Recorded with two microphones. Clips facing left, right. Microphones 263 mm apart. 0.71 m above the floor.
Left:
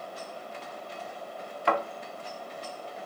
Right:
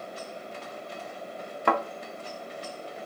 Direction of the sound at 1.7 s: 55° right (ahead or behind).